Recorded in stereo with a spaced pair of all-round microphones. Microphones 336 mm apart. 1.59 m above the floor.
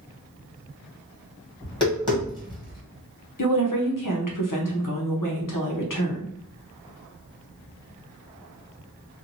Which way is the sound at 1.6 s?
15° left (ahead or behind).